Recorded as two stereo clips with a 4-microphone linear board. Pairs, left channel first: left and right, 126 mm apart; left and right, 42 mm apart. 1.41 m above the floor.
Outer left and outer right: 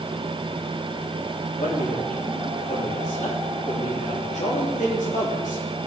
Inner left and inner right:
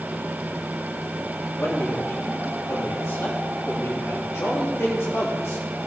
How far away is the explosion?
No explosion in this recording.